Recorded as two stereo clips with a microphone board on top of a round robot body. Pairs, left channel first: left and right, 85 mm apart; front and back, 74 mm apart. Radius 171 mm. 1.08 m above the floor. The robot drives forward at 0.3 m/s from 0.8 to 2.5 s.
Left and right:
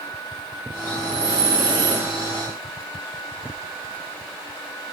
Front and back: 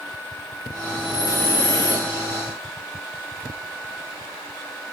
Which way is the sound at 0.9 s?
55° right.